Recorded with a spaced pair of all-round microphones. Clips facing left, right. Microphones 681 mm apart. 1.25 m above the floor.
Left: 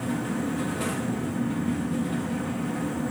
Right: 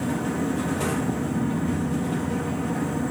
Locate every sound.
0.0 s a fan: 70° right (ahead or behind), 0.8 m